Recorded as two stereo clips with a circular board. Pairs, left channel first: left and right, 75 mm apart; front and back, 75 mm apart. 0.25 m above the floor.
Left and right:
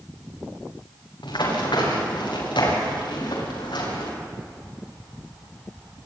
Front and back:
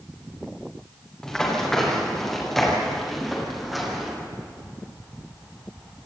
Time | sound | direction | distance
1.2 | running footsteps | 80° left | 8.5 m